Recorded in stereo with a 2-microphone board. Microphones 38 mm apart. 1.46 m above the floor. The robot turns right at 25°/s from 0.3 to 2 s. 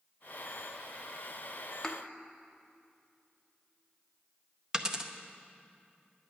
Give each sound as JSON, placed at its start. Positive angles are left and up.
{"t": 1.8, "sound": "a thud", "side_deg": 15, "distance_m": 0.9}
{"t": 4.7, "sound": "a dropped coin", "side_deg": -20, "distance_m": 0.7}